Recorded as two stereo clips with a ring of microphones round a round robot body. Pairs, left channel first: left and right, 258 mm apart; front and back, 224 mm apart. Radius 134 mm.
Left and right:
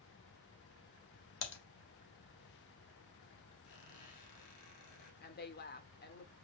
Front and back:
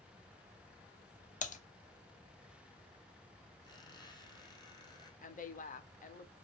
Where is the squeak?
70° left, 4 m.